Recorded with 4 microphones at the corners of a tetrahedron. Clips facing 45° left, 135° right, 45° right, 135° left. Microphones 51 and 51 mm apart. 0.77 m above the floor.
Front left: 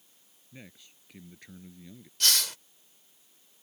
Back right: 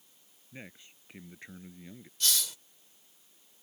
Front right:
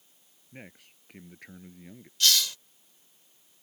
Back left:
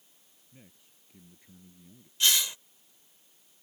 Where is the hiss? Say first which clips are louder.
Front left 5 dB, front right 1 dB; 65° left.